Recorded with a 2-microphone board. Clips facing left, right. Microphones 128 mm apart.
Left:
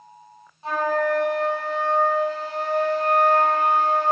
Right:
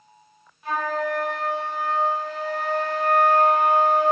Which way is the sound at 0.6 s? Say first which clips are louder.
Left 3 dB; 30° left (ahead or behind).